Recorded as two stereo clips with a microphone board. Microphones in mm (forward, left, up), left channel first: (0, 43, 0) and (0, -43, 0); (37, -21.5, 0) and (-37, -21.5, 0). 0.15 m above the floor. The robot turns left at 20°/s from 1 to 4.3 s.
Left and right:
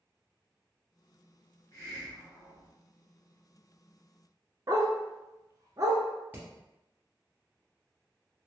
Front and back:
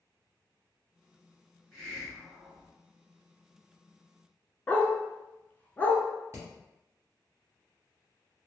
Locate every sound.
1.7 s a hiss: 90° left, 1.9 m; by 2.7 s 70° left, 1.9 m
4.7 s a dog barking: 60° right, 0.6 m
6.3 s hammering: 150° right, 1.6 m